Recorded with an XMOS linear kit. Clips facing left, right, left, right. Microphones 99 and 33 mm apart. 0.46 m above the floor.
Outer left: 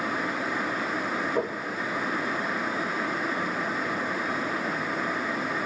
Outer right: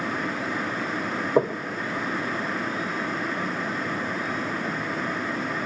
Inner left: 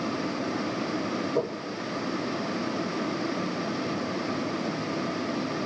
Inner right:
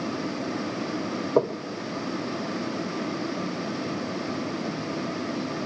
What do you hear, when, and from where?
1.4 s knocking: 40° right (ahead or behind), 0.8 m